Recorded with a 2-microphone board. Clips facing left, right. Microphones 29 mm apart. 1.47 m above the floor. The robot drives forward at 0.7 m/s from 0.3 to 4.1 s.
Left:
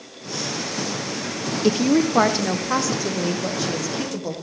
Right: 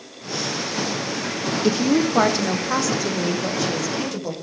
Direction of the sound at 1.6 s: 10° left (ahead or behind).